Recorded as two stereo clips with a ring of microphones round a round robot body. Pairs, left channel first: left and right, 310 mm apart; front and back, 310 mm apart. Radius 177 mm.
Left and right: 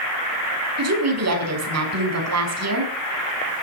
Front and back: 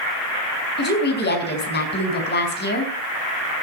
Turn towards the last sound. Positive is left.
turn(degrees=-55)